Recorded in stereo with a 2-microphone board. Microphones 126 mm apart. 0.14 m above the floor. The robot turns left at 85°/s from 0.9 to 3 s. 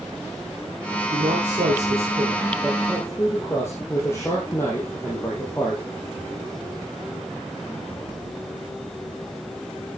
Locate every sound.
1.1 s a man speaking: 40° right, 5 m; by 5.8 s 160° left, 5 m